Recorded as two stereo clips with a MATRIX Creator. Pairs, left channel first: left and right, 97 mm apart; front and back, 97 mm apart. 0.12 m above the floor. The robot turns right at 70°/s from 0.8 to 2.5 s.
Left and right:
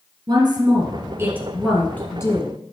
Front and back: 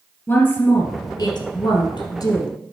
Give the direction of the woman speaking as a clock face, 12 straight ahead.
2 o'clock.